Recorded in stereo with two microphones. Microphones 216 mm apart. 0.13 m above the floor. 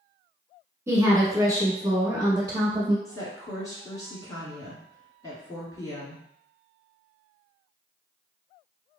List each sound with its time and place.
0.9 s a woman speaking: 15° right (ahead or behind), 1.3 m; by 3.0 s 20° right (ahead or behind), 1.4 m
3.0 s a woman speaking: 15° left (ahead or behind), 1.3 m